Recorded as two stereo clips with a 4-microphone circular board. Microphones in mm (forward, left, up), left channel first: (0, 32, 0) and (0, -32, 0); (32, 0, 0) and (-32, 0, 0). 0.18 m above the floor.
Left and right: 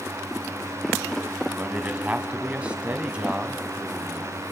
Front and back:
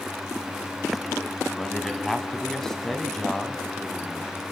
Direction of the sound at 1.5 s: 70° right.